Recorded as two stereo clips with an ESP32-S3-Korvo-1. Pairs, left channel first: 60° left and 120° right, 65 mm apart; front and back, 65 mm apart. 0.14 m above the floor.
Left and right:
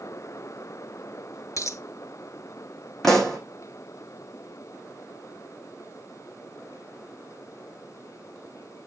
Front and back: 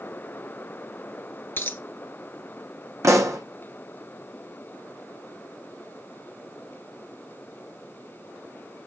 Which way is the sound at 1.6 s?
50° left.